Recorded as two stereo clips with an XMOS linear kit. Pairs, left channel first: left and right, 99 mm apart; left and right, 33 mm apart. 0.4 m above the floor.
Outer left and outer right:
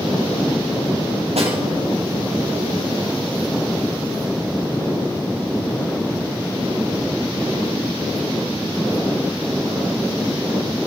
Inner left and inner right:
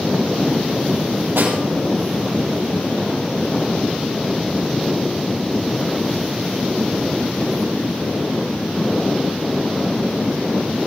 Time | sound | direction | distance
1.4 | a snare drum | 90° right | 4.5 m